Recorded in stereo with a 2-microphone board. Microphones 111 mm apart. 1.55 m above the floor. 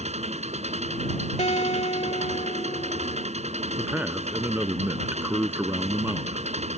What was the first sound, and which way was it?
An engine running, 85° right.